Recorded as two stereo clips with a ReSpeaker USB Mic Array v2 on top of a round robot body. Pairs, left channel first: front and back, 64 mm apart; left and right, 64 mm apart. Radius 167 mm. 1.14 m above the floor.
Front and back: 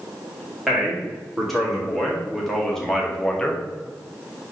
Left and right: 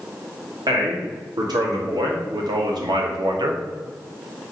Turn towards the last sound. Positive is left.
turn(degrees=-75)